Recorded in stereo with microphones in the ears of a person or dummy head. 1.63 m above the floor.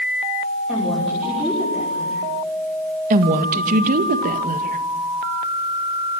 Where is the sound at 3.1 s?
45° right (ahead or behind), 2 m.